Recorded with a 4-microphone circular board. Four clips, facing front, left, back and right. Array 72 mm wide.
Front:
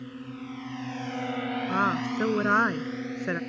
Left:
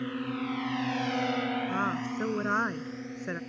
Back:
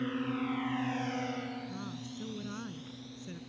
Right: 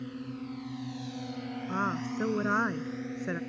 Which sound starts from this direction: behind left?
A drone, at 0.0 s.